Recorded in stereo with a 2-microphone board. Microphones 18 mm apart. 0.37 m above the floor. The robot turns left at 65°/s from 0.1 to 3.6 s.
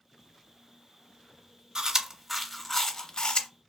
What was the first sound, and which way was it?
Chewing, 45° right (ahead or behind).